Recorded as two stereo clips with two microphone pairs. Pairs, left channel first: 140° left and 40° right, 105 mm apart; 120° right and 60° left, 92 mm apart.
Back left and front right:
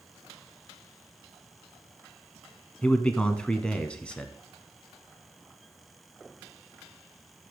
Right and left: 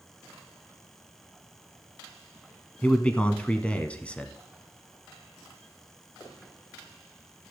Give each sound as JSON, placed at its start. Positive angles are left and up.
{"t": 2.8, "sound": "a man speaking", "azimuth_deg": -160, "distance_m": 1.1}